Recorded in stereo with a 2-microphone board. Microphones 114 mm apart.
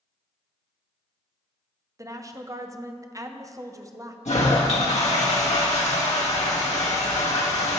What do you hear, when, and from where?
2.0 s a woman speaking: 30° right (ahead or behind), 0.5 m
4.2 s a toilet flushing: 85° left, 1.4 m